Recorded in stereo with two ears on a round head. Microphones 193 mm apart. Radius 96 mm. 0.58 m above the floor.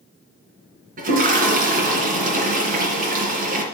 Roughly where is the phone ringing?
No phone ringing in this recording.